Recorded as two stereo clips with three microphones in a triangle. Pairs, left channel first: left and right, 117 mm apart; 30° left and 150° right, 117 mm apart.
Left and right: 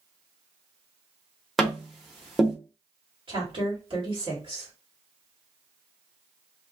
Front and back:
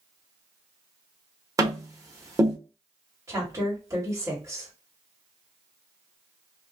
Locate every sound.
1.6 s tapping: straight behind, 0.9 m
3.3 s a woman speaking: 95° right, 1.9 m